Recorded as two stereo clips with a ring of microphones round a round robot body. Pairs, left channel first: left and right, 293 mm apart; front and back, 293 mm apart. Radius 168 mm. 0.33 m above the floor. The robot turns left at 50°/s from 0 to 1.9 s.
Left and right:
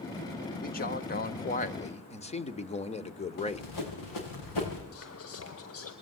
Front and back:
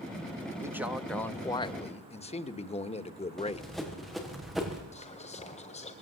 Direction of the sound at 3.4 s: 90° left.